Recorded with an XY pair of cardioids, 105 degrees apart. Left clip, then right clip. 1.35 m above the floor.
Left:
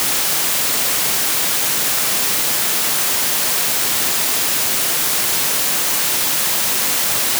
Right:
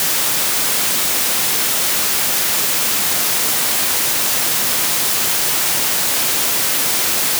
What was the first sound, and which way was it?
Only background noise.